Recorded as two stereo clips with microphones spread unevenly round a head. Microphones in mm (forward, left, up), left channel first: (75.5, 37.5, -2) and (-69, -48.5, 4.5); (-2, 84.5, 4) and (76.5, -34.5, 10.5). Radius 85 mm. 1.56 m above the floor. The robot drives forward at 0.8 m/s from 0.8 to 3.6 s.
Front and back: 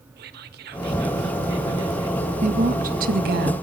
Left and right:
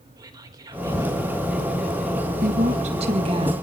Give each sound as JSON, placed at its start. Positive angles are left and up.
{"t": 0.2, "sound": "whispering", "azimuth_deg": -125, "distance_m": 1.7}
{"t": 2.4, "sound": "a woman speaking", "azimuth_deg": -100, "distance_m": 2.0}